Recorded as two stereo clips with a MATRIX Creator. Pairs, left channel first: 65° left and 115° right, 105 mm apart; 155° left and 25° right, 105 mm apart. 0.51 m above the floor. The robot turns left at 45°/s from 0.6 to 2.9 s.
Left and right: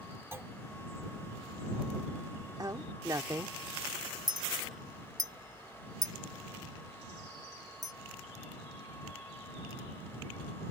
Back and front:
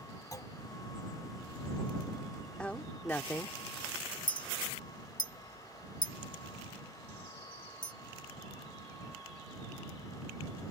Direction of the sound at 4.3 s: 165° right.